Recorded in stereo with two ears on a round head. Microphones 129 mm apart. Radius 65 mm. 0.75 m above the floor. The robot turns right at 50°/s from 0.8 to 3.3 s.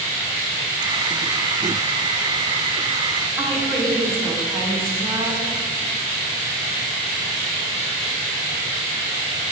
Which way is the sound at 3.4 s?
20° right (ahead or behind).